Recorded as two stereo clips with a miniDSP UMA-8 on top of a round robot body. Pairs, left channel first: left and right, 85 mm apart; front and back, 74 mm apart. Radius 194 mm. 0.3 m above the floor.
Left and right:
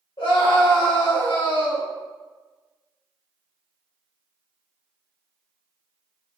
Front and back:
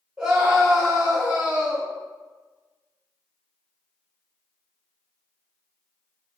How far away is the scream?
About 1.8 m.